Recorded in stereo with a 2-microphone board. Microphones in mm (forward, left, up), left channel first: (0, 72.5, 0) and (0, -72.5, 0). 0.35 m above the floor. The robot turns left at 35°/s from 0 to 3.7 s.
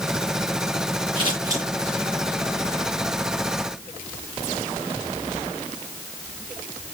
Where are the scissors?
35° right (ahead or behind), 7.5 m; by 1.6 s 20° right (ahead or behind), 7.5 m.